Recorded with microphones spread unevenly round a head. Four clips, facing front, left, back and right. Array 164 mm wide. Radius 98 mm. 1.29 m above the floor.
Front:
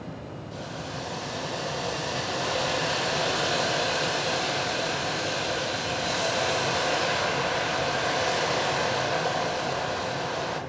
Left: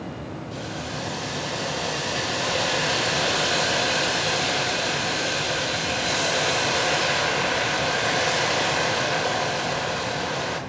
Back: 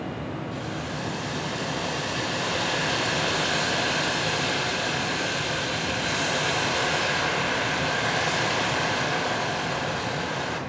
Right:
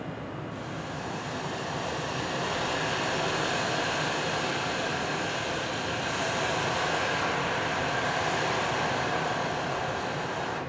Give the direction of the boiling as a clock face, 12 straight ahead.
8 o'clock.